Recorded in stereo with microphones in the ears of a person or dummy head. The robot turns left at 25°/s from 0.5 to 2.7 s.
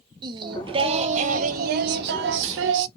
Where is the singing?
25° right, 0.6 m; by 2.9 s 80° right, 0.6 m.